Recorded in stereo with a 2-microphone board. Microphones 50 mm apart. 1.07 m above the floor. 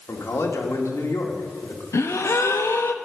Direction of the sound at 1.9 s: 65° left (ahead or behind).